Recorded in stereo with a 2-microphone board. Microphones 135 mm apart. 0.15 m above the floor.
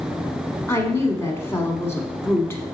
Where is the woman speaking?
20° left (ahead or behind), 1.0 m.